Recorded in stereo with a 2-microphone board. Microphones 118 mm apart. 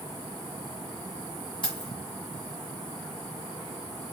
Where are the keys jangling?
45° left (ahead or behind), 1.6 m.